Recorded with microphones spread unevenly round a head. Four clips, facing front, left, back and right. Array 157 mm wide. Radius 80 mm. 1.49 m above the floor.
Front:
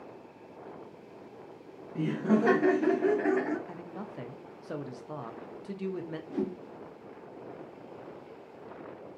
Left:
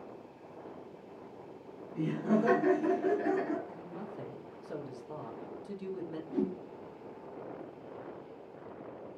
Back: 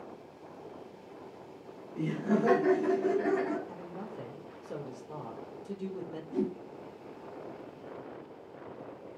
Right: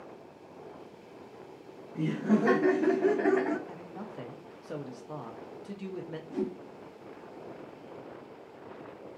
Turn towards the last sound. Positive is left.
turn(degrees=-20)